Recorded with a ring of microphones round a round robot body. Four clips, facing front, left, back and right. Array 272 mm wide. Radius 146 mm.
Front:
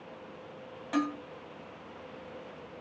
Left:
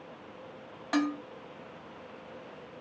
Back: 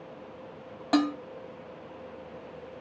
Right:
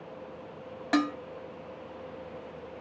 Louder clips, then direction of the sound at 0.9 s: Right 2 dB, back 6 dB; 155° right.